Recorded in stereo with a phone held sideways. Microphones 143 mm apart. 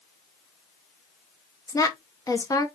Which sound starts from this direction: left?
A woman speaking, at 1.7 s.